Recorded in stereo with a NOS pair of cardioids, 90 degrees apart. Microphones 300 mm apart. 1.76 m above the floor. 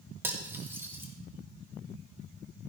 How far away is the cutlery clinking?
About 2.5 m.